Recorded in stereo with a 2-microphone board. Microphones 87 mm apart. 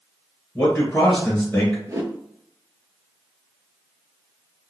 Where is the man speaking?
10° left (ahead or behind), 1.8 m.